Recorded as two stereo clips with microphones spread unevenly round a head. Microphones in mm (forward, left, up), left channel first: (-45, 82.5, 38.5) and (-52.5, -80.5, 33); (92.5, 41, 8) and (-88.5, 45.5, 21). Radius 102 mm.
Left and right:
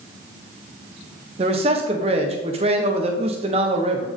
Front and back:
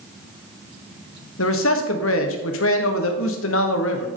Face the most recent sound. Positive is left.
turn(degrees=-30)